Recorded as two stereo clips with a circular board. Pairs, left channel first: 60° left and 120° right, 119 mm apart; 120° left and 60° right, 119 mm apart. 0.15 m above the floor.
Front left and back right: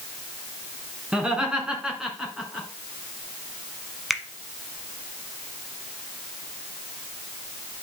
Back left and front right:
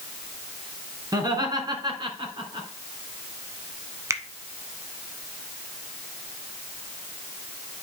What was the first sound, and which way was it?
Laughter, 45° right.